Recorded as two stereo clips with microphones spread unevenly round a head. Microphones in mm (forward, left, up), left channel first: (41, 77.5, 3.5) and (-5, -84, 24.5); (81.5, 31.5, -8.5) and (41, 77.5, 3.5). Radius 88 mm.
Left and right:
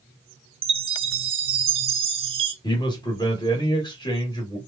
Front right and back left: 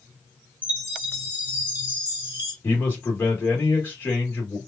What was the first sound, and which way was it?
A chime, 155° right.